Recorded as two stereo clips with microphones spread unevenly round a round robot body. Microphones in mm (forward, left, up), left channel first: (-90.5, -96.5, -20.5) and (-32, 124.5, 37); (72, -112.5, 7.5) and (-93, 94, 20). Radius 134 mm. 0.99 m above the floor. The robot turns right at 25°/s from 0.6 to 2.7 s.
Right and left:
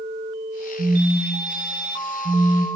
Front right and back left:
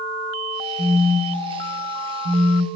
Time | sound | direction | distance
0.8 | a phone buzzing | 75° left | 1.1 m